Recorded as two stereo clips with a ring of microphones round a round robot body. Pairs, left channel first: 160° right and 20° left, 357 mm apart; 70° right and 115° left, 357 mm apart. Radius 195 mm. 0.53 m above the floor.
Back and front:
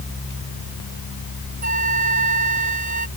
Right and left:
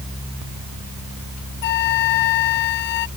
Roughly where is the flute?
Ahead right.